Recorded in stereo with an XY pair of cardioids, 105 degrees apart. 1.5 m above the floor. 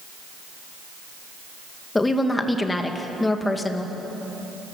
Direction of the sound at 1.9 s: 20° left.